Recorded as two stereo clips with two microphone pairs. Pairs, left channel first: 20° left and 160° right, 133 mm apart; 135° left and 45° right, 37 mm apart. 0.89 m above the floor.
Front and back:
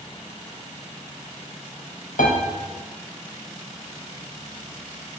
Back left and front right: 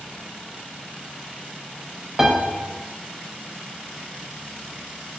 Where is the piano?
20° left, 0.6 m.